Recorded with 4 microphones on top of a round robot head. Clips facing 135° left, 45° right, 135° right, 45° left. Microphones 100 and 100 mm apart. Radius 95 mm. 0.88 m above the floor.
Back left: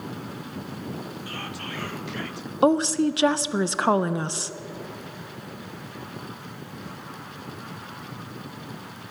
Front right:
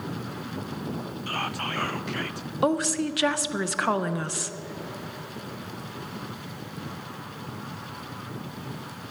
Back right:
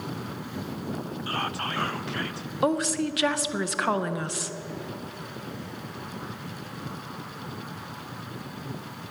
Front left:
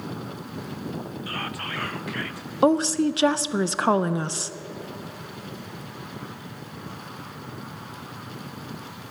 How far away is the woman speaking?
About 0.6 m.